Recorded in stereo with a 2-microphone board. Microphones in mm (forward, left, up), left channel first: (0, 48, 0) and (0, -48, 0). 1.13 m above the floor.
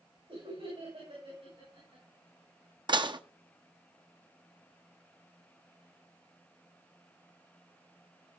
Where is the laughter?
85° right, 5 m; by 2.0 s 80° right, 6 m.